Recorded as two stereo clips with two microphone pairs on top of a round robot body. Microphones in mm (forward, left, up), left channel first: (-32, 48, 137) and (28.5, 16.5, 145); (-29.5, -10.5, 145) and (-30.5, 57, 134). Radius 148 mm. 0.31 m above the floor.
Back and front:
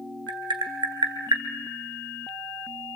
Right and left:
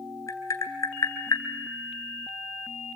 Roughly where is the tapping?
Ahead right.